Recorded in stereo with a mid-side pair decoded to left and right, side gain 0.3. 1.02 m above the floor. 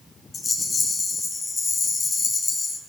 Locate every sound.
0.3 s a rattle: 50° left, 6.5 m